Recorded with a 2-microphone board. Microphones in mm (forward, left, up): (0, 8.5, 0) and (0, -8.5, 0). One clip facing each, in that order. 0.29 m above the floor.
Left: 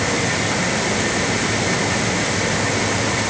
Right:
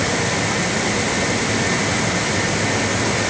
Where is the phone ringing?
No phone ringing in this recording.